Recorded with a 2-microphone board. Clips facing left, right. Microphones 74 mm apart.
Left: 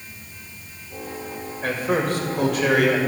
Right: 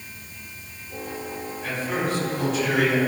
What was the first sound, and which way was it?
A man speaking, 65° left (ahead or behind).